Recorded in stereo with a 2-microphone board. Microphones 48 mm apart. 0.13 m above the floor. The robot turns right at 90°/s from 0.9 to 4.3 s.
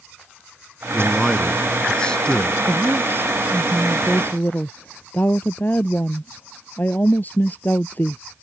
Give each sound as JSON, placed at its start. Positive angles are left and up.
{"t": 0.9, "sound": "a man speaking", "side_deg": -5}
{"t": 2.7, "sound": "a woman speaking", "azimuth_deg": -100}